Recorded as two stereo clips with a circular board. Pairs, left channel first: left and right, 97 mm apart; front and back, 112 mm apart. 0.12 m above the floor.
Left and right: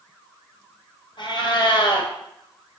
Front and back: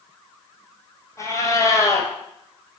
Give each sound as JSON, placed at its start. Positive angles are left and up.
{"t": 1.2, "sound": "a cat meowing", "azimuth_deg": 60, "distance_m": 1.1}